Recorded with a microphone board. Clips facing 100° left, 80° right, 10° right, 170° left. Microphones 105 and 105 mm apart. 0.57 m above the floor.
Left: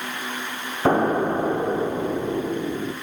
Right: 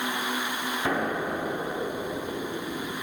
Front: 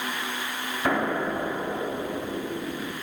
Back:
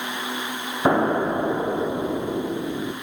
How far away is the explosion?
About 0.8 m.